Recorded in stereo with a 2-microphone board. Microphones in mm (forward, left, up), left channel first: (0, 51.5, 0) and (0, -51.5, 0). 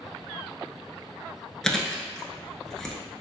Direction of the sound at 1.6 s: 5° left (ahead or behind).